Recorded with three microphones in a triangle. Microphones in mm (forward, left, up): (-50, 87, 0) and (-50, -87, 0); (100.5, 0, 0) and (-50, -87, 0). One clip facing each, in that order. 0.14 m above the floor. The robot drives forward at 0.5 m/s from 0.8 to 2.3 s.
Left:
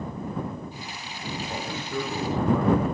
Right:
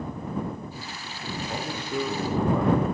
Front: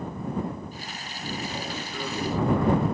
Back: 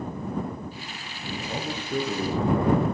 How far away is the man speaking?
About 4 m.